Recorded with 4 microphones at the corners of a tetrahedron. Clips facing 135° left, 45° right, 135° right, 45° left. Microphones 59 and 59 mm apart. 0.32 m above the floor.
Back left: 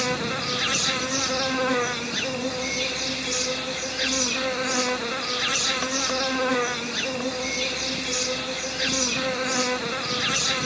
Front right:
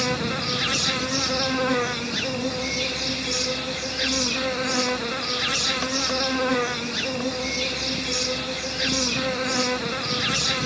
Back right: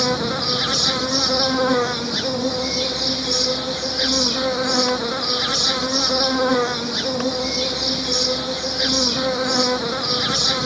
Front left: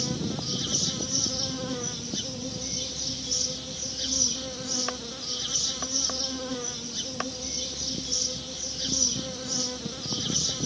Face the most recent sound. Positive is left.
turn(degrees=-135)